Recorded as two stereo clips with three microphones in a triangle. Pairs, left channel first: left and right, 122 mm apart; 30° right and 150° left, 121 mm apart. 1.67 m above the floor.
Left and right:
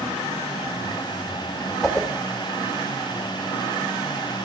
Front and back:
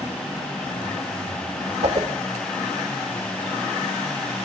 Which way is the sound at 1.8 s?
175° left.